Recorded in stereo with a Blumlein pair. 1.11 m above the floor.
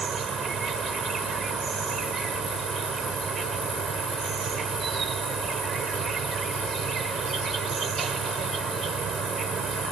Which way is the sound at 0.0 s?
20° right.